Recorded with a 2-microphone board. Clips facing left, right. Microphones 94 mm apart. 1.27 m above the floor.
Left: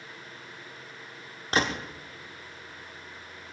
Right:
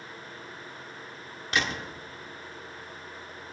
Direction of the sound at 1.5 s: 35° left (ahead or behind).